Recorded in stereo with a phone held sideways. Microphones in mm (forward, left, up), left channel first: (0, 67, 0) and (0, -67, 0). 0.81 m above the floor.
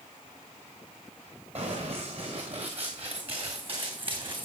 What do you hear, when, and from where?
1.6 s running footsteps: 50° right (ahead or behind), 5.5 m; by 4.5 s 35° right (ahead or behind), 3 m